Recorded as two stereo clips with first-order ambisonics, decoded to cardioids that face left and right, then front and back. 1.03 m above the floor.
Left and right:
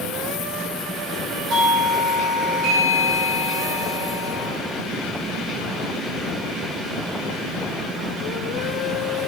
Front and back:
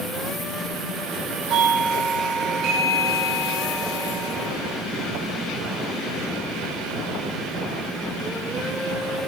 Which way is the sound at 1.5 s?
140° right.